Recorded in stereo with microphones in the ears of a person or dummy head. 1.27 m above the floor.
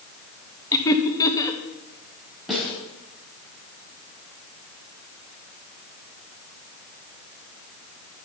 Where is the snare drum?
Centre (ahead or behind), 5 m.